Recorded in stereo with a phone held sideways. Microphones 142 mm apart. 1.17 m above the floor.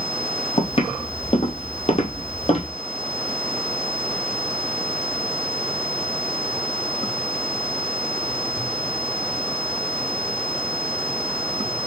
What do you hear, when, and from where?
0.6 s footsteps: 40° left (ahead or behind), 1.8 m; by 2.7 s 45° left (ahead or behind), 1.8 m